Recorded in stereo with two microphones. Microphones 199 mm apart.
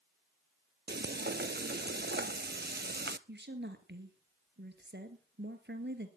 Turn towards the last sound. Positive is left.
turn(degrees=-60)  # may be behind; listen again after turning